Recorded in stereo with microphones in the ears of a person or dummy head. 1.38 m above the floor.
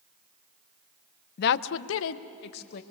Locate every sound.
1.4 s a woman speaking: 60° left (ahead or behind), 0.6 m; by 2.8 s 55° left (ahead or behind), 1.3 m